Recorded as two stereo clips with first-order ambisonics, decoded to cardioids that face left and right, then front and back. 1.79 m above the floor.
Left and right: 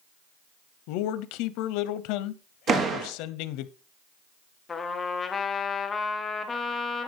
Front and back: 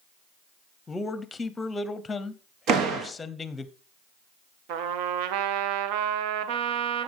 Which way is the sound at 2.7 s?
145° right.